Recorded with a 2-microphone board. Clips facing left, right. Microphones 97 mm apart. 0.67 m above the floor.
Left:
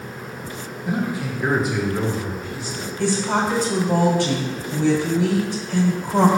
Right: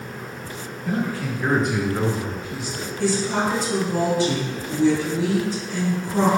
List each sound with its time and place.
0.8 s a man speaking: 15° left (ahead or behind), 1.1 m; by 2.9 s 15° right (ahead or behind), 1.2 m
3.0 s a woman speaking: 60° left (ahead or behind), 2 m